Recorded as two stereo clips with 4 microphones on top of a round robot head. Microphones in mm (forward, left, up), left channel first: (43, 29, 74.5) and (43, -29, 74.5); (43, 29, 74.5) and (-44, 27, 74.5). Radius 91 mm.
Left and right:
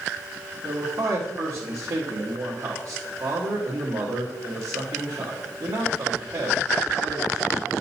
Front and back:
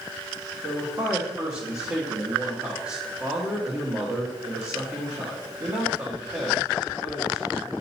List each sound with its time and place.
0.6 s a man speaking: 115° right, 1.6 m